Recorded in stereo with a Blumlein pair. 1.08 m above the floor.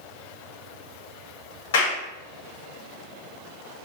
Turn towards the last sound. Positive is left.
turn(degrees=55)